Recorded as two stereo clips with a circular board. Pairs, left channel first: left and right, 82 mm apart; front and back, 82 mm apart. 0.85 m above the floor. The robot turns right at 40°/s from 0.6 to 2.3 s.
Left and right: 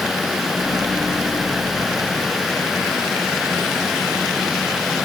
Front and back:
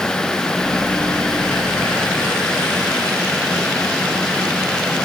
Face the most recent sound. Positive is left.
No sound to turn to.